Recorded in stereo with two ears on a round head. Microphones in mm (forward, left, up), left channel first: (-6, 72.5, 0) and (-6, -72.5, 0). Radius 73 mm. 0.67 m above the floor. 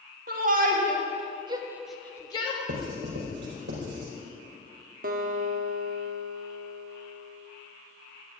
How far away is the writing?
About 5 m.